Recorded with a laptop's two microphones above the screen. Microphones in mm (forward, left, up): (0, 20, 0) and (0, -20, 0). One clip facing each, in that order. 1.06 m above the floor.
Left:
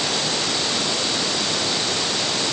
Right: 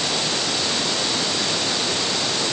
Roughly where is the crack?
I don't hear a crack.